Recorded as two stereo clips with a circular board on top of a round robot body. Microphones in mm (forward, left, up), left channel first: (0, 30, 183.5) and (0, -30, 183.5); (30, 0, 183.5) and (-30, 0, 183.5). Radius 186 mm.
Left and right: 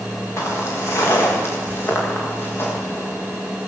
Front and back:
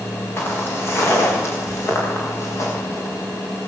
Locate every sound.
0.4 s footsteps: 50° left, 8.5 m; by 3.1 s 35° left, 10 m